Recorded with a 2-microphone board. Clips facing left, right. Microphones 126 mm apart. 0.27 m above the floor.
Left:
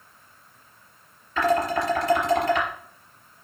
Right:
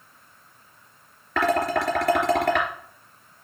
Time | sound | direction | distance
1.4 | dishes clattering | 75° right (ahead or behind) | 3 m